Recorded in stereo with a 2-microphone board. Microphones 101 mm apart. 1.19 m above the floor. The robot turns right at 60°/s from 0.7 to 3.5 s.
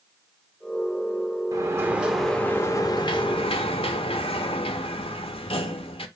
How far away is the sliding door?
About 0.6 m.